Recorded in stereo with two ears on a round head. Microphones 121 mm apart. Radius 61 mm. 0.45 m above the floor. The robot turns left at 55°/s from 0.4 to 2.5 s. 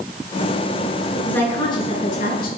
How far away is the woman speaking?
About 6 m.